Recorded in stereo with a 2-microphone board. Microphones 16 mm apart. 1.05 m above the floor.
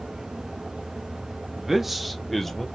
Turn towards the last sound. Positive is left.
turn(degrees=15)  # may be behind; listen again after turning